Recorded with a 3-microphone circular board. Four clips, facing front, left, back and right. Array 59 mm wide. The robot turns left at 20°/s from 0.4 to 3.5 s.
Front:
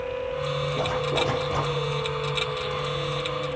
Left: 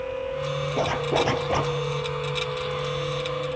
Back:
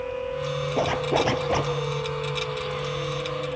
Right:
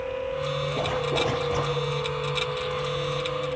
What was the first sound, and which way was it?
A zipper, 160° left.